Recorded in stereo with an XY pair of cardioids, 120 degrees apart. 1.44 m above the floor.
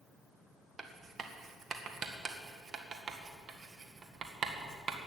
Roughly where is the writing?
Ahead right.